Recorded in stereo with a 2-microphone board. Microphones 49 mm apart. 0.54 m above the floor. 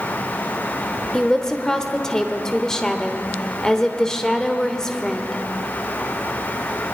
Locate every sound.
1.1 s a woman speaking: 10° left (ahead or behind), 1.4 m